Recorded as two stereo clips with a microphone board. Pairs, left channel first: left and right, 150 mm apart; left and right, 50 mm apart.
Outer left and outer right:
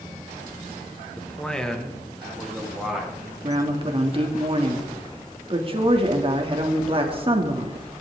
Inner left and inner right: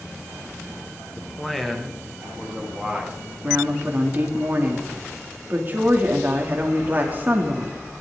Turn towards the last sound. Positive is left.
turn(degrees=-35)  # may be behind; listen again after turning